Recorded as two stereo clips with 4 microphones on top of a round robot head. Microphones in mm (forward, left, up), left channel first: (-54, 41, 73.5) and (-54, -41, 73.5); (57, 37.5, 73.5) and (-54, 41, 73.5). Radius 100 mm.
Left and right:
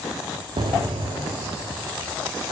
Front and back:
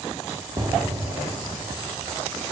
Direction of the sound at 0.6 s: 120° right.